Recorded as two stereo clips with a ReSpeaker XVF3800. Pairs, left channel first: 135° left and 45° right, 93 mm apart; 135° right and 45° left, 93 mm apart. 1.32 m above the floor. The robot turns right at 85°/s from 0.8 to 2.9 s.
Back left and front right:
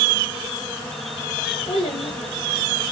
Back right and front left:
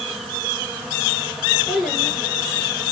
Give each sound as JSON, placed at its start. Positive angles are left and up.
{"t": 1.7, "sound": "a child speaking", "azimuth_deg": 120, "distance_m": 4.0}